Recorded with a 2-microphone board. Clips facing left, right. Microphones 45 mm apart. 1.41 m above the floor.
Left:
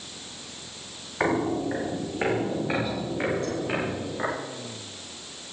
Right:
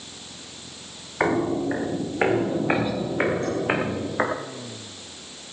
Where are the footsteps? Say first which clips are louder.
Right 2 dB; 10° right (ahead or behind), 4.5 m; by 4.3 s 55° right (ahead or behind), 6 m.